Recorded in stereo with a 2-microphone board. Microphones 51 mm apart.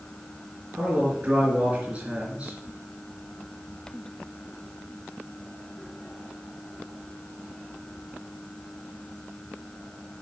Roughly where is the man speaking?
Right.